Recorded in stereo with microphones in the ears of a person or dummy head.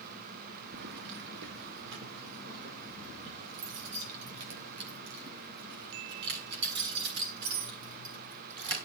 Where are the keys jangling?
60° right (ahead or behind), 1.2 m; by 8.8 s 65° right (ahead or behind), 10.5 m.